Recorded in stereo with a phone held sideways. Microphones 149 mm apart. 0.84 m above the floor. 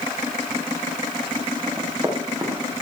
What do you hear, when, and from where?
1.7 s running footsteps: 25° right (ahead or behind), 5.5 m; by 2.7 s 20° right (ahead or behind), 5 m